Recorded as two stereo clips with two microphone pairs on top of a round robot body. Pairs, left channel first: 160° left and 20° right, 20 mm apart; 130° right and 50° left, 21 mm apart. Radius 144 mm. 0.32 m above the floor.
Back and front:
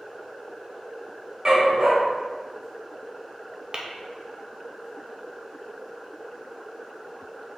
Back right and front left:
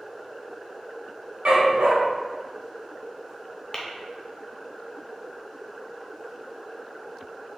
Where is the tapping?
60° right, 0.6 m.